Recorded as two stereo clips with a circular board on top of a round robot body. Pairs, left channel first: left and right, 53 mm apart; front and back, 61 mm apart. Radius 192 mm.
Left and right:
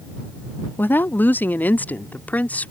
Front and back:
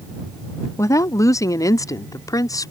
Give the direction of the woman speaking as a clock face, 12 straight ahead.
11 o'clock.